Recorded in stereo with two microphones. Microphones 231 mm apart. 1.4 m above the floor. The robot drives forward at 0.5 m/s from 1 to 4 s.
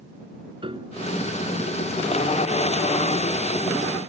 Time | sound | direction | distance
0.6 | a piano | 20° right (ahead or behind) | ?